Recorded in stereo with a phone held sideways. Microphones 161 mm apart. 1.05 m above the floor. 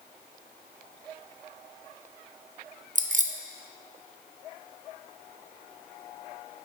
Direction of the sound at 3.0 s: 50° right (ahead or behind).